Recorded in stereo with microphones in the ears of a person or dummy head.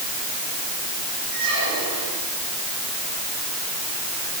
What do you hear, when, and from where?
1.3 s a squeak: 70° right (ahead or behind), 9.5 m